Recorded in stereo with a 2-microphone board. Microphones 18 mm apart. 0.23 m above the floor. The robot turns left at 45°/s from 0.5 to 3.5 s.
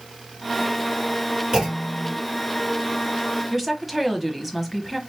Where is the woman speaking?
10° right (ahead or behind), 1.1 m.